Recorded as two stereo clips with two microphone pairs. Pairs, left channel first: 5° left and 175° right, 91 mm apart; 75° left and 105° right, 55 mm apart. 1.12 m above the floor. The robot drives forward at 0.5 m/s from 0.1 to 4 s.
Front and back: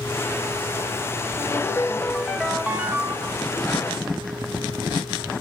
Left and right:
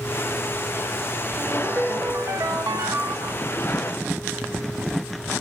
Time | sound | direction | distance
1.4 | a ringtone | 55° right | 0.9 m